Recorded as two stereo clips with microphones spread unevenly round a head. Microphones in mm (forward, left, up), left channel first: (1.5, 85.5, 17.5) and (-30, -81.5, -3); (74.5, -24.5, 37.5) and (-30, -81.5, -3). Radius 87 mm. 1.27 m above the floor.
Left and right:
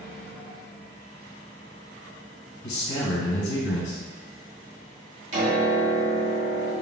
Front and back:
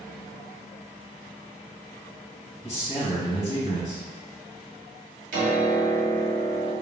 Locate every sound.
2.6 s a man speaking: 100° left, 1.5 m
5.3 s a piano: 150° right, 1.5 m